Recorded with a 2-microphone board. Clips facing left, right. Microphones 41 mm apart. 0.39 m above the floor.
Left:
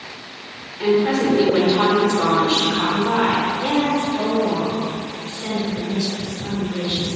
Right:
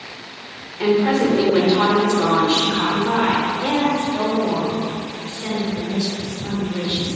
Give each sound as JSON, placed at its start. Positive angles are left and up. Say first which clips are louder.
{"t": 0.8, "sound": "a woman speaking", "louder": "right 1 dB", "side_deg": -25, "distance_m": 0.9}
{"t": 3.6, "sound": "a woman speaking", "louder": "even", "side_deg": -20, "distance_m": 1.4}